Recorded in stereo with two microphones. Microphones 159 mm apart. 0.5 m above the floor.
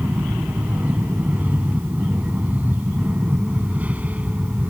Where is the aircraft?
10° right (ahead or behind).